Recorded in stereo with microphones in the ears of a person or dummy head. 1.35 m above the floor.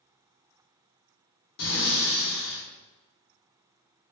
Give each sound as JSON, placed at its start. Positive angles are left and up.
{"t": 1.6, "sound": "breathing", "side_deg": 75, "distance_m": 1.5}